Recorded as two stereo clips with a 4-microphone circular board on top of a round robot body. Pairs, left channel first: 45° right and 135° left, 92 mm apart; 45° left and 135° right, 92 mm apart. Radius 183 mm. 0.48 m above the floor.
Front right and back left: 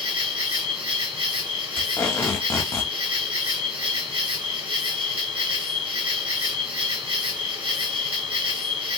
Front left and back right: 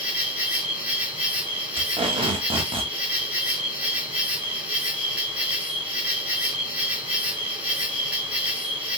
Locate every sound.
0.0 s an insect: 150° left, 2 m
1.8 s tape being pulled: 115° right, 0.5 m